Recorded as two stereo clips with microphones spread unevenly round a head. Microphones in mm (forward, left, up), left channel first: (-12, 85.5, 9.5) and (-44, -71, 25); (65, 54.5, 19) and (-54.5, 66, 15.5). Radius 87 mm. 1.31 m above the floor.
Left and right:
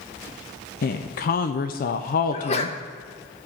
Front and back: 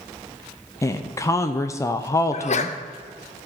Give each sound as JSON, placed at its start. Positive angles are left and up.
{"t": 0.8, "sound": "a woman speaking", "azimuth_deg": 60, "distance_m": 0.6}
{"t": 2.3, "sound": "a sneeze", "azimuth_deg": 20, "distance_m": 1.0}